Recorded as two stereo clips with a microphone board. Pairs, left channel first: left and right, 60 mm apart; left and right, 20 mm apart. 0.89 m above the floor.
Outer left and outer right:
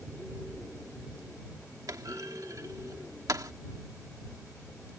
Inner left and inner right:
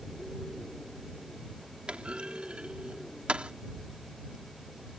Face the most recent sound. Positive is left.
turn(degrees=-70)  # may be behind; listen again after turning